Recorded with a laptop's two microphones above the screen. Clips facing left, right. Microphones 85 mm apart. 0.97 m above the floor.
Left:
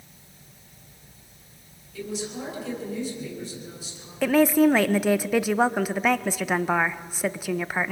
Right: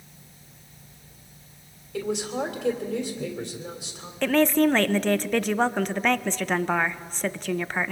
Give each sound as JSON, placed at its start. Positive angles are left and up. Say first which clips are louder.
{"t": 1.9, "sound": "a woman speaking", "louder": "right 5 dB", "side_deg": -80, "distance_m": 3.0}
{"t": 4.2, "sound": "a woman speaking", "louder": "left 2 dB", "side_deg": 10, "distance_m": 0.6}